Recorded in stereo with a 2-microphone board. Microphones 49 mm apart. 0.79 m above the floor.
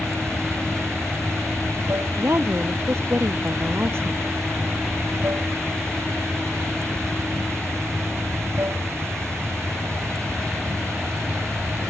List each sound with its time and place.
0.0 s running water: 75° right (ahead or behind)
2.1 s a woman speaking: 55° right (ahead or behind)